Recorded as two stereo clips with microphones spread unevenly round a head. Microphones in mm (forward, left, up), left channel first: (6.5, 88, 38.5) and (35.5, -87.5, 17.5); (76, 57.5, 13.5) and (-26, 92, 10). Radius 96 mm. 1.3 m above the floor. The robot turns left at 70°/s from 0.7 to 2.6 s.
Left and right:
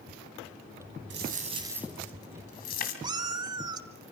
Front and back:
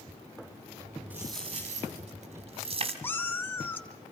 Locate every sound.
1.1 s a dropped coin: 115° right, 2.5 m; by 2.9 s 140° left, 2.5 m
3.0 s a cat meowing: 35° right, 1.1 m